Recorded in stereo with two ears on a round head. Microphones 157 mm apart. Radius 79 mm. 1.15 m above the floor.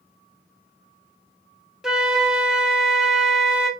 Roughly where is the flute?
Centre.